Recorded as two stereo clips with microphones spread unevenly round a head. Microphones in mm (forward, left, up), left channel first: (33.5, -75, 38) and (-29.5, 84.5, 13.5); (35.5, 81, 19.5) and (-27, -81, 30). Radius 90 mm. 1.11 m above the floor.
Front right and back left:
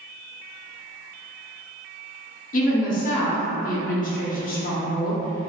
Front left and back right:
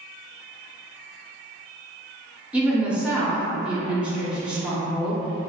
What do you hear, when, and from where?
2.5 s a woman speaking: 25° right, 0.7 m